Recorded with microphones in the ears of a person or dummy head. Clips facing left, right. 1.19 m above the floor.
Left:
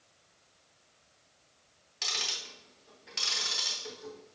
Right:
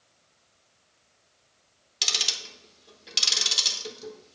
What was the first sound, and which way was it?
Ticking, 50° right (ahead or behind).